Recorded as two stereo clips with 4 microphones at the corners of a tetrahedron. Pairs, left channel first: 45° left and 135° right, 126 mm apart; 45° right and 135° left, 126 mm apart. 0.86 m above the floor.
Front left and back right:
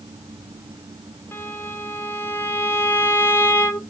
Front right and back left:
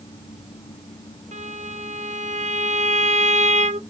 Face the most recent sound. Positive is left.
turn(degrees=115)